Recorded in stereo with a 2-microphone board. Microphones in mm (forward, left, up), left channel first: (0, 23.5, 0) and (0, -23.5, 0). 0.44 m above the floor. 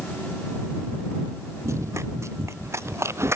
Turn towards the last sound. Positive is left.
turn(degrees=-70)  # may be behind; listen again after turning